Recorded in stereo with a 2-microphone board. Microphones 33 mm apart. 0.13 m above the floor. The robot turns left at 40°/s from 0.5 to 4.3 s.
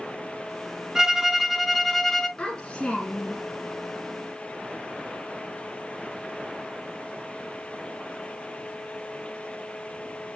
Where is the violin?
150° right, 0.9 m; by 2.3 s 160° left, 0.9 m.